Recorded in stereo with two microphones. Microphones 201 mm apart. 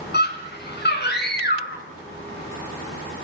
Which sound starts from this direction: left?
A scream, at 0.1 s.